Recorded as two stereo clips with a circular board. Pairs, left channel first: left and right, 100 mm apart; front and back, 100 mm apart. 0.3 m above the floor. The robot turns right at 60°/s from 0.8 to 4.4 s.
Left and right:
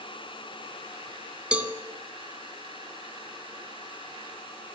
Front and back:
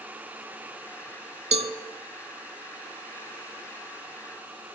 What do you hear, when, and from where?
1.5 s a cowbell: 170° right, 0.6 m; by 1.7 s 155° right, 0.6 m